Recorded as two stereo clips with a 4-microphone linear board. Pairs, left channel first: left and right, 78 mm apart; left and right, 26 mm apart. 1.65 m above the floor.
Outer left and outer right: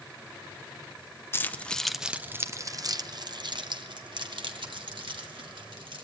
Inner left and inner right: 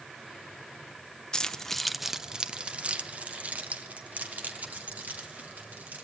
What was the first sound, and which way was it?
Keys jangling, 25° left (ahead or behind).